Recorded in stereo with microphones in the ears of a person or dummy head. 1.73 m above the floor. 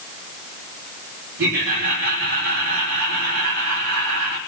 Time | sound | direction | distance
1.4 | laughter | 75° right (ahead or behind) | 9 m